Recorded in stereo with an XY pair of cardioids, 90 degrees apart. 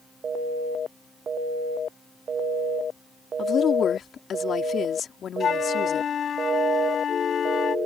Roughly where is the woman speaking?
Ahead left.